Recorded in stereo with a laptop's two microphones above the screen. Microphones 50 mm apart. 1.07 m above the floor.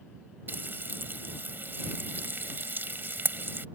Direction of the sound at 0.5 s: 45° right (ahead or behind).